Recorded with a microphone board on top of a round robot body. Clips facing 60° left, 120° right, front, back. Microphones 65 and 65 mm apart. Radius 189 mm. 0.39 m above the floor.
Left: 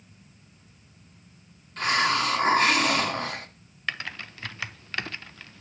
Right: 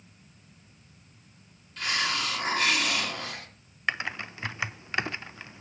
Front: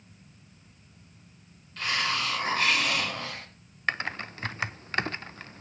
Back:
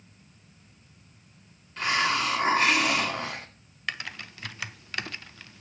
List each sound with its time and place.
1.8 s a hiss: 110° left, 1.5 m
3.9 s typing on a keyboard: 50° right, 0.6 m